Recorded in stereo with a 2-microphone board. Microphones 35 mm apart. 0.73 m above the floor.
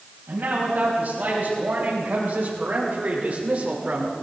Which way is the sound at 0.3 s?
50° right (ahead or behind).